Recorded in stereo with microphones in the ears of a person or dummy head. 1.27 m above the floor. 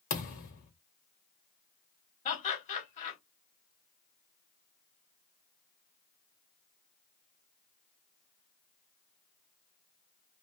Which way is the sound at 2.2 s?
45° left (ahead or behind).